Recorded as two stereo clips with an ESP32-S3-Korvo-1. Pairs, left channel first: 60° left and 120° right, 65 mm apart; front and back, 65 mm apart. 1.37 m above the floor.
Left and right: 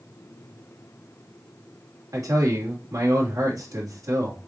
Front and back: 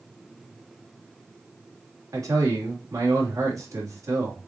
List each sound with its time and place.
2.1 s a man speaking: 150° right, 3 m